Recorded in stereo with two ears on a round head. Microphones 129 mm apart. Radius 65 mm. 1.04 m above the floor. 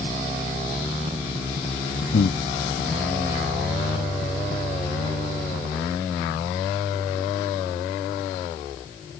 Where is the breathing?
75° left (ahead or behind).